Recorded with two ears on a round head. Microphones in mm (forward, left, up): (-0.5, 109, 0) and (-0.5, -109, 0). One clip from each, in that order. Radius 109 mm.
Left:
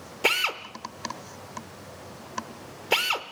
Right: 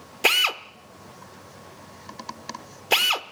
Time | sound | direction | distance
0.2 | a drill | 20° right (ahead or behind) | 0.7 m